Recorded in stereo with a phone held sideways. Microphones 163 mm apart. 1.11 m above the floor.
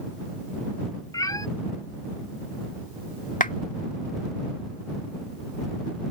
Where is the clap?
55° left (ahead or behind).